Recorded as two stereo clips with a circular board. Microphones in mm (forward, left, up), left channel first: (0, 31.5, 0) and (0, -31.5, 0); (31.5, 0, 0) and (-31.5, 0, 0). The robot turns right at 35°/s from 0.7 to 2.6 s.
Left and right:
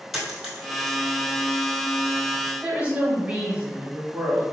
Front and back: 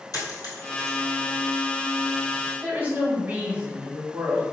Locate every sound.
0.1 s a dropped coin: 5° right, 1.5 m; by 1.0 s 5° left, 1.5 m
2.6 s a woman speaking: 140° right, 1.3 m